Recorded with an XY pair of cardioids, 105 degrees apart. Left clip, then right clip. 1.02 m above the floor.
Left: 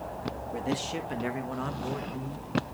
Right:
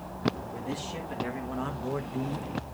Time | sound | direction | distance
0.5 | a man speaking | 55° left | 1.8 m